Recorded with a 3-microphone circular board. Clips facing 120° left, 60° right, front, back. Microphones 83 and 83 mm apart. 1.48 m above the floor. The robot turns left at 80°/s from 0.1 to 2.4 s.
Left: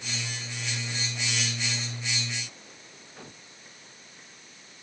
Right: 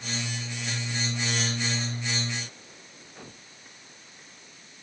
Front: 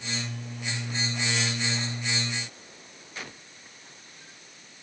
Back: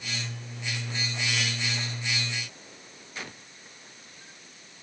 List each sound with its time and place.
Only background noise.